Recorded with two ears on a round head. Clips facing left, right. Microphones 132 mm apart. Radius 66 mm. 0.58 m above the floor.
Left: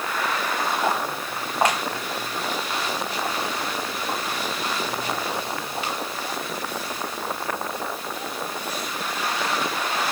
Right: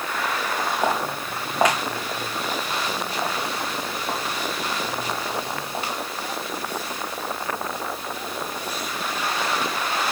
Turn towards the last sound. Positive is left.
turn(degrees=-35)  # may be behind; listen again after turning